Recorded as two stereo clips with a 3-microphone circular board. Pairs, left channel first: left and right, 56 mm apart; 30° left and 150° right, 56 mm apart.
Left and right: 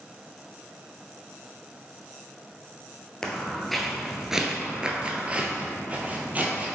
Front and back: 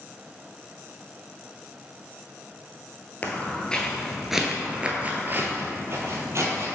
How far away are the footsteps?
About 1.0 m.